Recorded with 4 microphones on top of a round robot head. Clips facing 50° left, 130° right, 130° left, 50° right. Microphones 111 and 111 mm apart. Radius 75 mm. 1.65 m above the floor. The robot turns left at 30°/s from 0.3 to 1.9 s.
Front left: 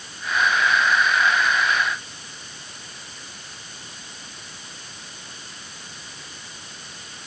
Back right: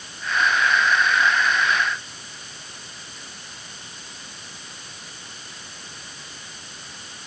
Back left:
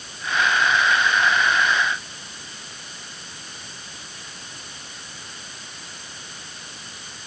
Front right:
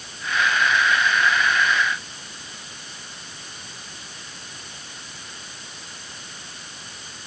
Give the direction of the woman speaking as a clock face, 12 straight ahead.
No woman speaking in this recording.